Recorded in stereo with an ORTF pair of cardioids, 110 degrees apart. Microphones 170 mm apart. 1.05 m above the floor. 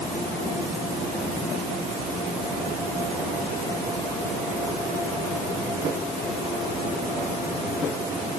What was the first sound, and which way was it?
Only background noise.